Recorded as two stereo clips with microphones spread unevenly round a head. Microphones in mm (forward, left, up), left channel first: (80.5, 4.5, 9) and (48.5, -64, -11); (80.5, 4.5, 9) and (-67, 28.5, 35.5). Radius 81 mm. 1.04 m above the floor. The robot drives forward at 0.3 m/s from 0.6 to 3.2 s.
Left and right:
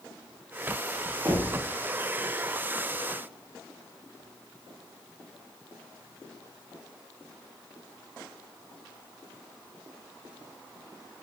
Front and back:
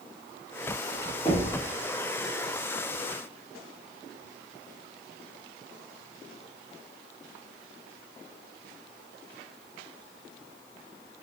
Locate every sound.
1.2 s knocking: 75° right, 1.4 m; by 1.6 s 80° right, 1.4 m